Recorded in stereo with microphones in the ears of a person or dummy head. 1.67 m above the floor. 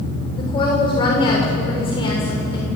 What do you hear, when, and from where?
0.3 s a woman speaking: 30° left (ahead or behind), 7 m